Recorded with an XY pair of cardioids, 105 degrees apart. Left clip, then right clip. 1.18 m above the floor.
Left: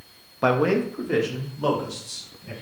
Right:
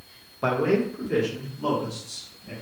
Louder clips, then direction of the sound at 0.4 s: Left 2 dB; 40° left.